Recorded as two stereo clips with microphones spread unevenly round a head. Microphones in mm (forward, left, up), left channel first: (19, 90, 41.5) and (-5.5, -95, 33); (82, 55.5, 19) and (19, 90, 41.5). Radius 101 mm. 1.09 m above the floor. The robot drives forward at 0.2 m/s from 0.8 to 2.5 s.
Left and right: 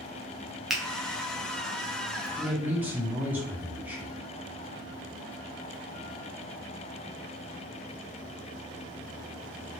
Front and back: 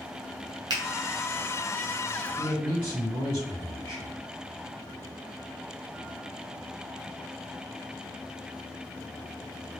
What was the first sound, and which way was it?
A finger snap, 175° left.